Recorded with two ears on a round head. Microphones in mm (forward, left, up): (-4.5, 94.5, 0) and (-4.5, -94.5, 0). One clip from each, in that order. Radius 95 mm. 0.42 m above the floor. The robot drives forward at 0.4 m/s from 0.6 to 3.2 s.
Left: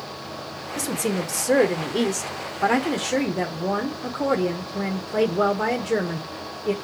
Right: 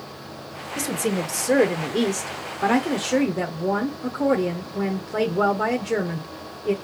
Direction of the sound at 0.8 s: 5° left (ahead or behind).